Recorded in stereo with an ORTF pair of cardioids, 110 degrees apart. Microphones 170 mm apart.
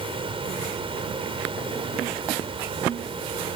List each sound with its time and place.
0.0 s a fan: 30° right